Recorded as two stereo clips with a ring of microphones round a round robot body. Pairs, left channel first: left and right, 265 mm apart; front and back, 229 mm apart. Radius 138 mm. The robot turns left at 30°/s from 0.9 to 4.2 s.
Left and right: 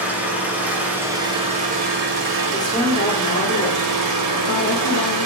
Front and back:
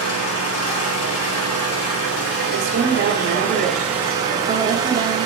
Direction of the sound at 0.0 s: 5° right.